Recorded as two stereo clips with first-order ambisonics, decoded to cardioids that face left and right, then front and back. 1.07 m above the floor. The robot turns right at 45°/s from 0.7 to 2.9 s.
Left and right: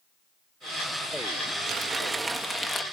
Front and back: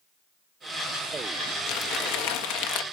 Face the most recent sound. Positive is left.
turn(degrees=25)